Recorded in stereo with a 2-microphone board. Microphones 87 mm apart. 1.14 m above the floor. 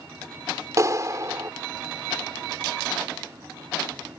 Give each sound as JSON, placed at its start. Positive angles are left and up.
{"t": 0.8, "sound": "a clap", "side_deg": -40}